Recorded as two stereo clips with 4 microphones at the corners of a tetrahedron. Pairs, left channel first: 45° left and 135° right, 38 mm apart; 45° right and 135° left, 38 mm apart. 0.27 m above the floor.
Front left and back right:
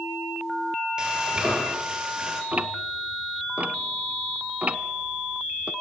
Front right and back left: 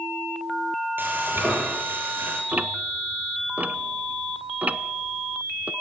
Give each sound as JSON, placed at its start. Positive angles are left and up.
{"t": 1.0, "sound": "frying", "azimuth_deg": 160, "distance_m": 7.0}
{"t": 2.5, "sound": "ticking", "azimuth_deg": 180, "distance_m": 0.9}